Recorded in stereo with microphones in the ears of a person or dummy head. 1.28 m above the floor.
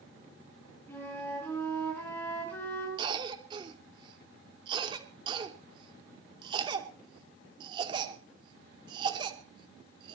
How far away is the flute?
About 8 m.